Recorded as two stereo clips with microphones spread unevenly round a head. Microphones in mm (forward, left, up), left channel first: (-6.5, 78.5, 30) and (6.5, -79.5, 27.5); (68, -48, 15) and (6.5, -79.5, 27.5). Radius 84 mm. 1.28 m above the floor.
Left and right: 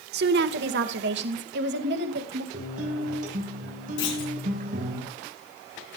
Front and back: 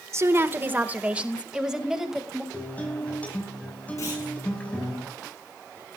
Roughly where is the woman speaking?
Right.